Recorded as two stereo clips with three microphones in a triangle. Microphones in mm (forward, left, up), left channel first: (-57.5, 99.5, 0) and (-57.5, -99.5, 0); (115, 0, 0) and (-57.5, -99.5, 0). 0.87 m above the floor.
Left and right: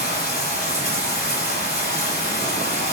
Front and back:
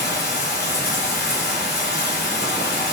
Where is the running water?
55° left, 1.6 m.